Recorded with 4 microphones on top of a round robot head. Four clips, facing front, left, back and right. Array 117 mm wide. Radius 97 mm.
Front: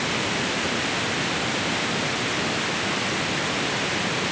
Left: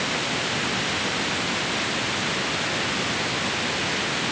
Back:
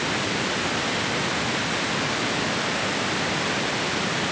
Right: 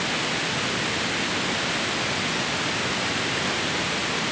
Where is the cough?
No cough in this recording.